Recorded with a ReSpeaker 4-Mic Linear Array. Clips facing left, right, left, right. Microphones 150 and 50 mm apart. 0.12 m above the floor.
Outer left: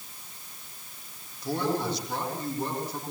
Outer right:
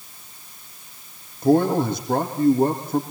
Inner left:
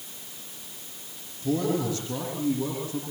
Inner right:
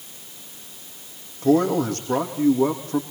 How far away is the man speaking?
About 5.5 m.